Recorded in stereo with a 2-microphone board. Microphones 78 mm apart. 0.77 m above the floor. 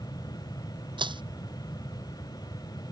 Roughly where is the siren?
I don't hear a siren.